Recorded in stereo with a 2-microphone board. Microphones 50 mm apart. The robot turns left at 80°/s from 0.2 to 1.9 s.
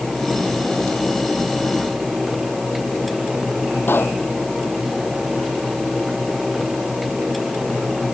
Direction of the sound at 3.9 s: 45° left (ahead or behind).